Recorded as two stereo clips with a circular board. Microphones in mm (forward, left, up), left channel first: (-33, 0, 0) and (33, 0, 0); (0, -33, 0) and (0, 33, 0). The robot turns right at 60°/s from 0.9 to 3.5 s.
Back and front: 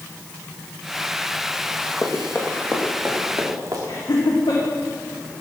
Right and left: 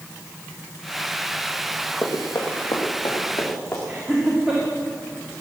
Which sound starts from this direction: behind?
Laughter, at 3.9 s.